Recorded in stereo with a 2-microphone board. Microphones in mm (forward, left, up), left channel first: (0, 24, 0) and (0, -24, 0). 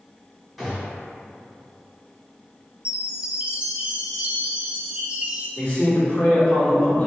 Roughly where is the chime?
Right.